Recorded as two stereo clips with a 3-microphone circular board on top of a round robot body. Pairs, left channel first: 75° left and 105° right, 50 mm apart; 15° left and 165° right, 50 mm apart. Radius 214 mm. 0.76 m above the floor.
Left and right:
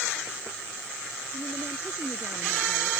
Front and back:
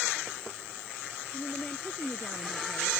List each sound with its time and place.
1.3 s a woman speaking: 55° right